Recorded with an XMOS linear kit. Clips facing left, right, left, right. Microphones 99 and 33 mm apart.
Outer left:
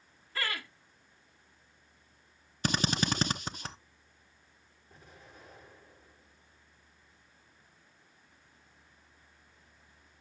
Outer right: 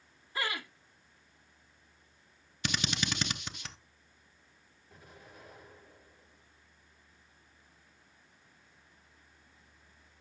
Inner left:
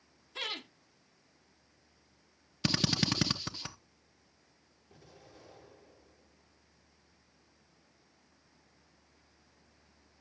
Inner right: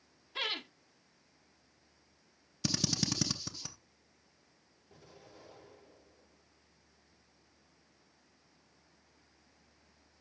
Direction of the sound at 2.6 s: 35° left (ahead or behind).